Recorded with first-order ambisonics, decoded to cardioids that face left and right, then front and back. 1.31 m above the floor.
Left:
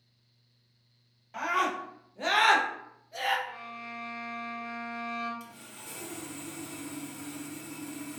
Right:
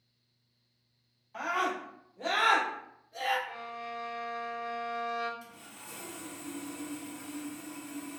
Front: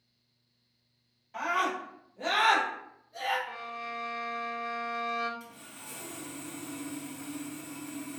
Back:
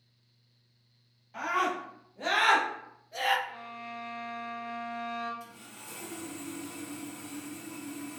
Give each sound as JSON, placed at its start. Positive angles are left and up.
{"t": 1.3, "sound": "a scream", "azimuth_deg": 85, "distance_m": 1.1}
{"t": 3.5, "sound": "a violin", "azimuth_deg": -20, "distance_m": 0.6}
{"t": 5.4, "sound": "sawing", "azimuth_deg": 85, "distance_m": 1.0}